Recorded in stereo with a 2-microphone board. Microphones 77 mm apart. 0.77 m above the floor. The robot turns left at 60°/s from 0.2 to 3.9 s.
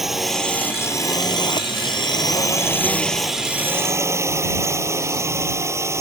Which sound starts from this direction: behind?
A drone, at 0.0 s.